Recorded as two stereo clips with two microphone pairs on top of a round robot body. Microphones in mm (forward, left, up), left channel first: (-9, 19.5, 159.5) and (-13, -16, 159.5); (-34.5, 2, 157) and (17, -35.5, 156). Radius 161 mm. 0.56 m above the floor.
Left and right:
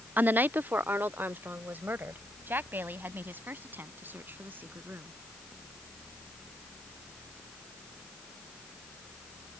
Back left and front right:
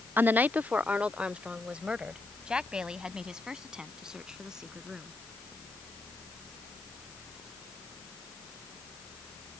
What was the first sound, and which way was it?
A woman speaking, 90° right.